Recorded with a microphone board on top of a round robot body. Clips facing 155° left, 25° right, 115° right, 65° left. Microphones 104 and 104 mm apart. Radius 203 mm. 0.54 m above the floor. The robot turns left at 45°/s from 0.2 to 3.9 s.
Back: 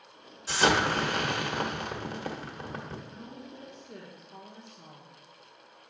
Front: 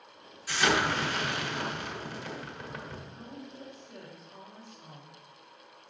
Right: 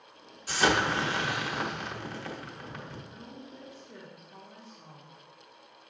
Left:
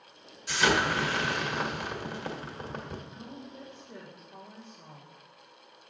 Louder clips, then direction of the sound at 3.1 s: Back 1 dB, left 2 dB; 165° right.